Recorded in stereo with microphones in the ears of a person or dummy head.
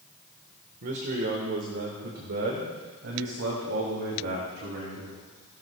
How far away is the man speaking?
About 1.4 m.